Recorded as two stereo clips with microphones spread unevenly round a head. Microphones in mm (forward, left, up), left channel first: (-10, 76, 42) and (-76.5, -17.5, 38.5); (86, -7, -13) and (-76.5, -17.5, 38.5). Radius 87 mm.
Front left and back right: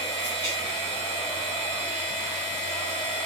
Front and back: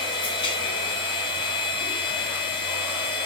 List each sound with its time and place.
0.0 s a machine running: 65° right, 0.8 m